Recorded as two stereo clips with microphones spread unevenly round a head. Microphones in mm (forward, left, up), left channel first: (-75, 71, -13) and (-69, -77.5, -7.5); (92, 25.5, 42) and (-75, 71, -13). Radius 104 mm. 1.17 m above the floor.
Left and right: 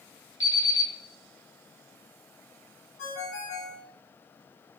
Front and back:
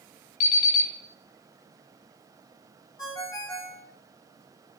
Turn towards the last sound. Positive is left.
turn(degrees=45)